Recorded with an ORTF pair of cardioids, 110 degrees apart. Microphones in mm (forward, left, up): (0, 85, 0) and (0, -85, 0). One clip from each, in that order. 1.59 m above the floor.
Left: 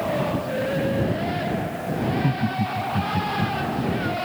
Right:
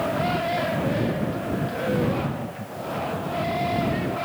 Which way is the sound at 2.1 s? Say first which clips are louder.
Left 3 dB; 65° left.